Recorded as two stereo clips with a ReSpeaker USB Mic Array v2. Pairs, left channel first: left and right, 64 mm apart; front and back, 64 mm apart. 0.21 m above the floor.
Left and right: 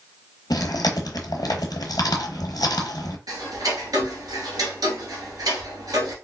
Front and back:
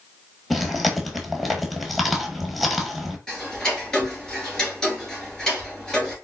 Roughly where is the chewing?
Left.